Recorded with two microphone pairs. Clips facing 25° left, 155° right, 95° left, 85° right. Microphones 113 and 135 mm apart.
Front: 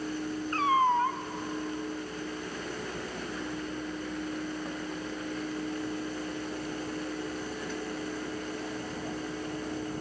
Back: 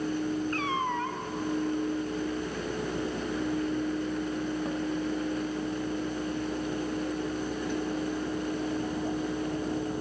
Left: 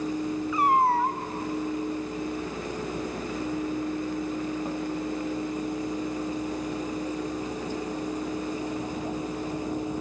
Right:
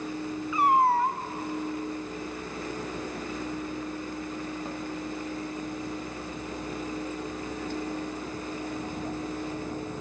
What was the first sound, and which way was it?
A cat meowing, straight ahead.